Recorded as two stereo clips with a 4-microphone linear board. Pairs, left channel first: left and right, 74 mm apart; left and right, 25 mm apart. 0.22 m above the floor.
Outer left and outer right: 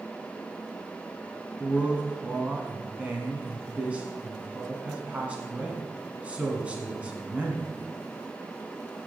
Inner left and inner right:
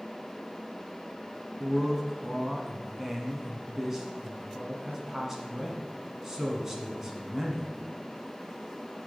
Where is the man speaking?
20° right (ahead or behind), 1.8 m.